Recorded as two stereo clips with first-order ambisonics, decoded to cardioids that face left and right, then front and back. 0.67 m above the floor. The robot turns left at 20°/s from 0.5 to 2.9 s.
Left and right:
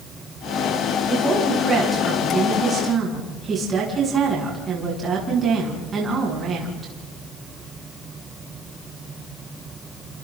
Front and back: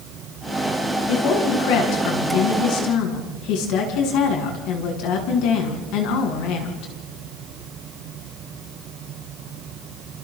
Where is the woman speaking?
15° left, 6.5 m; by 6.9 s 25° right, 6.5 m.